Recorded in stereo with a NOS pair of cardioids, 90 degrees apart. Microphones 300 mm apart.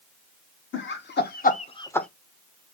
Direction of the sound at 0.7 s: 40° left.